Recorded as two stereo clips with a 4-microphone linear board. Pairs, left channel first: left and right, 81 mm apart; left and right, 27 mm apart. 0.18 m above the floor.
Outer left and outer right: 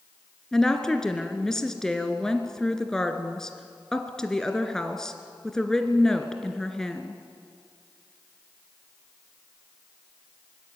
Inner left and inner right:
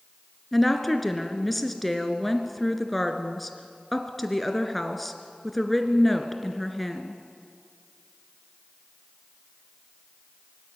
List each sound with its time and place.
0.5 s a woman speaking: 5° left (ahead or behind), 2 m